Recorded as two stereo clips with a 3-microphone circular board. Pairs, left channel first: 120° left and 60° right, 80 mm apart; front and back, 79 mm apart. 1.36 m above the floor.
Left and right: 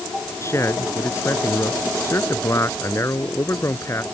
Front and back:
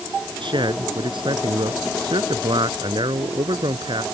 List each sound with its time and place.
0.4 s a man speaking: 175° left